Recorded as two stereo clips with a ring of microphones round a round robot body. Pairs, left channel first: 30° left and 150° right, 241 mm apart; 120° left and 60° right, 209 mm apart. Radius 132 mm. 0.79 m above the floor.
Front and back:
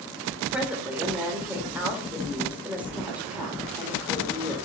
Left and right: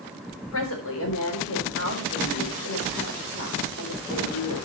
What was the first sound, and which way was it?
A woman speaking, 125° left.